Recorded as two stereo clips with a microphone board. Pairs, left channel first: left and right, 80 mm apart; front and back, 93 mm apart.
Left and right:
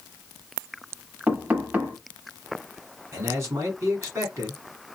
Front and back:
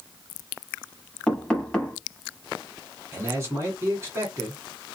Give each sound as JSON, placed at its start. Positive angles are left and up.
{"t": 1.3, "sound": "knocking", "azimuth_deg": -60, "distance_m": 0.9}
{"t": 3.1, "sound": "a man speaking", "azimuth_deg": -130, "distance_m": 2.0}